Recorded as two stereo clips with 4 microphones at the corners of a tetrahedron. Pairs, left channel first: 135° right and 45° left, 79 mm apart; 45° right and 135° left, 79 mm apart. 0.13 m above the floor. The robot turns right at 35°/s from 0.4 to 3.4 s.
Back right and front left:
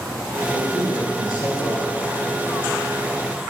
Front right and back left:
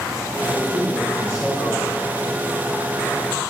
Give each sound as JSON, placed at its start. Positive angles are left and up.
{"t": 0.5, "sound": "a man speaking", "azimuth_deg": -165, "distance_m": 3.5}